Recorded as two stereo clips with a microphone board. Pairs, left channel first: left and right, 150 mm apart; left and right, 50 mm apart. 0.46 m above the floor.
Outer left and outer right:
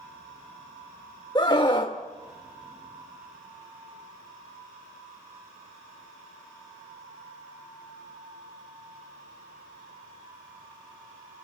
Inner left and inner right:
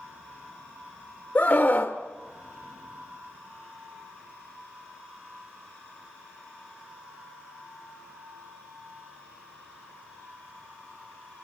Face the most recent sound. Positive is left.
turn(degrees=30)  # may be behind; listen again after turning